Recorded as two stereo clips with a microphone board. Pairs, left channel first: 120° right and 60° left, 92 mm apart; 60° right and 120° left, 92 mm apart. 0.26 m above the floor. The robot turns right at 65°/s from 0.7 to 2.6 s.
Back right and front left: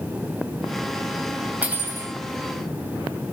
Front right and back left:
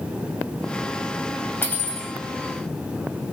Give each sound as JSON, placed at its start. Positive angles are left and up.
{"t": 1.6, "sound": "cutlery clinking", "azimuth_deg": -5, "distance_m": 0.9}